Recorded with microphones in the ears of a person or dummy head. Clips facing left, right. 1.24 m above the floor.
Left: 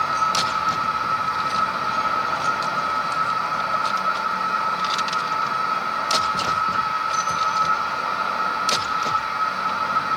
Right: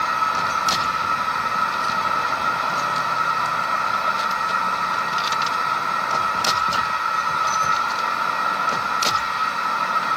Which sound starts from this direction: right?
A machine running, at 0.0 s.